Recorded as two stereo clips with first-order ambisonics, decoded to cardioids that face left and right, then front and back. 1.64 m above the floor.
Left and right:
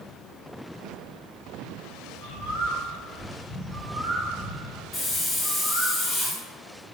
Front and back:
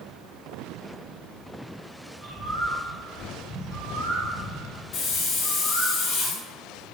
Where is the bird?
135° right, 1.3 m.